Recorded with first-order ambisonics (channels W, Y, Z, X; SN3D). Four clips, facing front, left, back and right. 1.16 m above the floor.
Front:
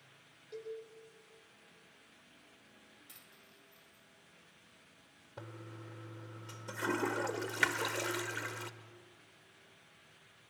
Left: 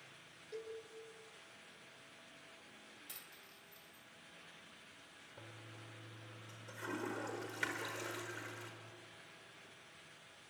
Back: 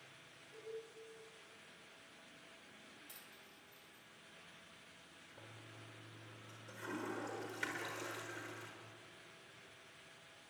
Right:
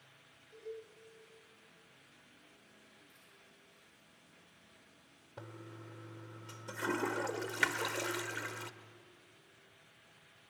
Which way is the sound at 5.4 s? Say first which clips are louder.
Right 6 dB, front 9 dB; 35° right.